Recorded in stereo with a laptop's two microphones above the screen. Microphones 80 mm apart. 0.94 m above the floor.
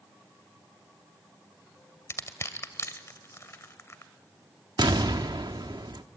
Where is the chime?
No chime in this recording.